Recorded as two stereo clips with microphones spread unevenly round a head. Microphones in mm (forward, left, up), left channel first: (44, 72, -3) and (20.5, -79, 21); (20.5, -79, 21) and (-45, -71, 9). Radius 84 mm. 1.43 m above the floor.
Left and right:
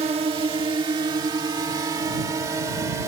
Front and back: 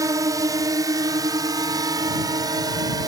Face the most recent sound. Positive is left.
turn(degrees=-170)